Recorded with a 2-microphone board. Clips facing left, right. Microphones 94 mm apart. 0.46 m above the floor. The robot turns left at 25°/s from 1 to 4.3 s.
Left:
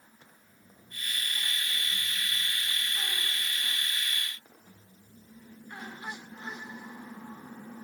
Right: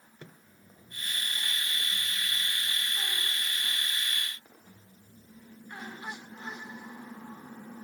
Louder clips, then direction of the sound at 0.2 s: Right 7 dB; 85° right.